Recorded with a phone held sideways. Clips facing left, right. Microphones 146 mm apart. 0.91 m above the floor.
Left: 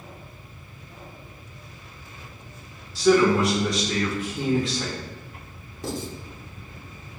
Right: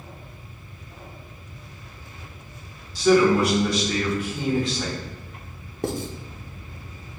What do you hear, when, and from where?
3.0 s a man speaking: centre (ahead or behind), 1.5 m
5.8 s writing: 60° right (ahead or behind), 0.7 m